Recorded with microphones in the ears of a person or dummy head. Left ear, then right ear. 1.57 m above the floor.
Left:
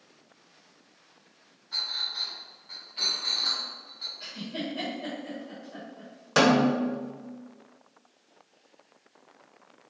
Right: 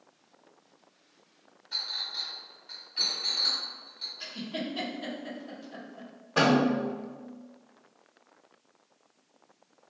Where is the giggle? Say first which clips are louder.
Even; 50° right (ahead or behind), 0.9 m.